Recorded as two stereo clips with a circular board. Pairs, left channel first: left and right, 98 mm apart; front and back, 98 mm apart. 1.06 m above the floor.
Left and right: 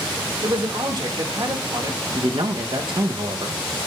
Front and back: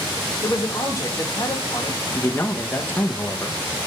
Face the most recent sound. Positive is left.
turn(degrees=-70)